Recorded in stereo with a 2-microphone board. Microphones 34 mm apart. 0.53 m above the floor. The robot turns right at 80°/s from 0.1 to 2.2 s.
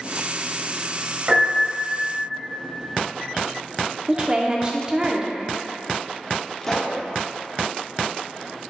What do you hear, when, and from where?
1.3 s a piano: 120° right, 1.9 m; by 2.0 s 60° right, 1.9 m
4.1 s a woman speaking: 25° right (ahead or behind), 0.7 m
6.6 s a pop: 10° left (ahead or behind), 1.1 m